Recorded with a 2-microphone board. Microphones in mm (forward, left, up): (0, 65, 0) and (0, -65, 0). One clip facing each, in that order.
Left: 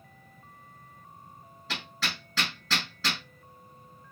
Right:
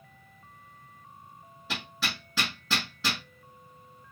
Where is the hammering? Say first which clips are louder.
Right 1 dB; 10° right (ahead or behind), 3 m.